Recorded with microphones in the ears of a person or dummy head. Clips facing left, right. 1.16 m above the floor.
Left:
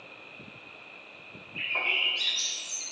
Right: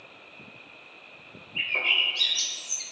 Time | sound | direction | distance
1.6 | a bird | 35° right (ahead or behind) | 3 m